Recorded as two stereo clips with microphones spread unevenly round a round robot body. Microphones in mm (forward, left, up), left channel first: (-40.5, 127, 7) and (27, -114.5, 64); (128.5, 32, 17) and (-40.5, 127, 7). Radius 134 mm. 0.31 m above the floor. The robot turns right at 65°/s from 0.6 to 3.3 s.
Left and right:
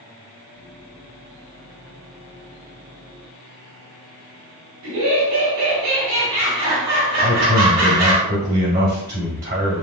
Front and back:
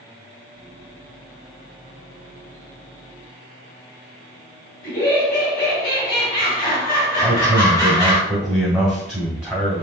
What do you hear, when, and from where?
4.8 s laughter: 80° right, 2.5 m
7.2 s a man speaking: 110° right, 1.8 m